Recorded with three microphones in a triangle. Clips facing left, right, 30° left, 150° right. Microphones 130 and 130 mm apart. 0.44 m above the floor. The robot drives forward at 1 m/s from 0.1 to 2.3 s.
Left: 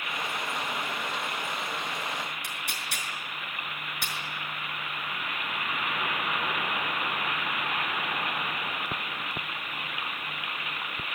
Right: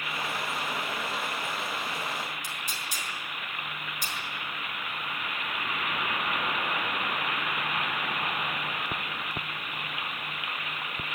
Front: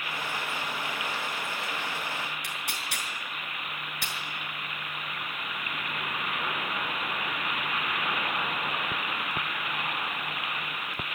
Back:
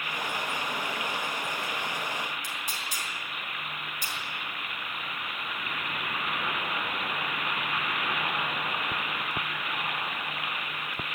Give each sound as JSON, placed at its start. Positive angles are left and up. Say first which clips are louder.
{"t": 2.4, "sound": "tearing paper", "louder": "even, even", "azimuth_deg": 60, "distance_m": 5.5}